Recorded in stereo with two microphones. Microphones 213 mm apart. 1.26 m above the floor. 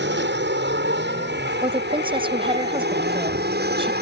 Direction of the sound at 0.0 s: 55° right (ahead or behind).